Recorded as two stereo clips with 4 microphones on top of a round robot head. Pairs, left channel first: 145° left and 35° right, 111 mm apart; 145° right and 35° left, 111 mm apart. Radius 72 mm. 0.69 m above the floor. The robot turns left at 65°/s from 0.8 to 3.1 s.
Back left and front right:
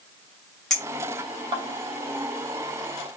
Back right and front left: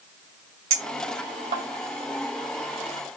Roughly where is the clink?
Ahead left.